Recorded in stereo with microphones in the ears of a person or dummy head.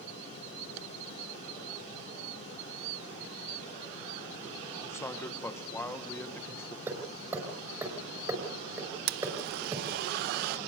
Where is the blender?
55° right (ahead or behind), 0.7 m.